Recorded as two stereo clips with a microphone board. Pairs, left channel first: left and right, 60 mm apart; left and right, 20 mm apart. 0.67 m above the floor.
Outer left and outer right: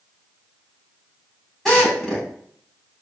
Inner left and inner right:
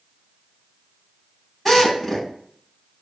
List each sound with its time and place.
1.6 s a drill: 10° left (ahead or behind), 5.5 m